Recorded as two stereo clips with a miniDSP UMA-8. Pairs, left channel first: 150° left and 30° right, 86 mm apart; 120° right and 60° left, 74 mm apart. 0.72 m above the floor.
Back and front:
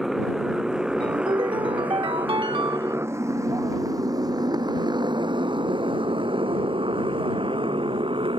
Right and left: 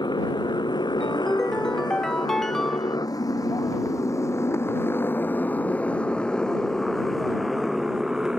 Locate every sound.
0.0 s a motorcycle: 115° right; by 8.4 s 20° right
1.0 s a ringtone: 35° right